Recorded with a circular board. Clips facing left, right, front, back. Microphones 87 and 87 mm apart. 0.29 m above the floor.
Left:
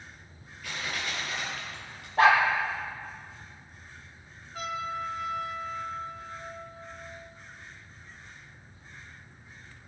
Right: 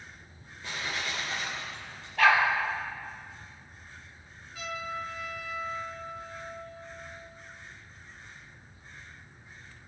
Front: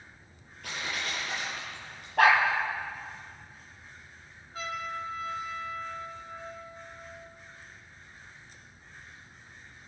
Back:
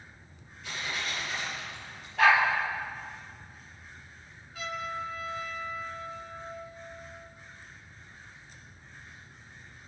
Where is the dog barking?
35° left, 3 m.